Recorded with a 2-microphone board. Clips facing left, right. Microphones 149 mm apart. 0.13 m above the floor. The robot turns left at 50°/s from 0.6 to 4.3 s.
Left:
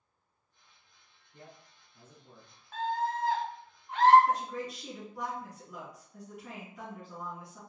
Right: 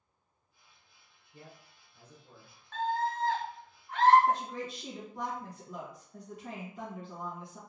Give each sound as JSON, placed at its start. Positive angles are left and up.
{"t": 1.3, "sound": "a man speaking", "side_deg": -10, "distance_m": 1.2}
{"t": 2.7, "sound": "a scream", "side_deg": 10, "distance_m": 1.1}
{"t": 4.3, "sound": "a woman speaking", "side_deg": -30, "distance_m": 1.3}